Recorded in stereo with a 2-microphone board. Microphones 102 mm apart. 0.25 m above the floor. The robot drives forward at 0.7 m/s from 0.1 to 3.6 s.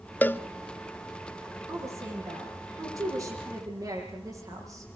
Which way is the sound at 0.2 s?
20° left (ahead or behind).